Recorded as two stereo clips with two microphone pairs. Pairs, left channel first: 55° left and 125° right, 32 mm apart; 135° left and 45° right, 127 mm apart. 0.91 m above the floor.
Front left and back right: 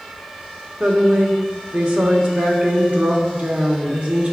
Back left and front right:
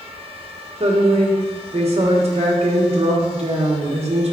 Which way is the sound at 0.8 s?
80° right.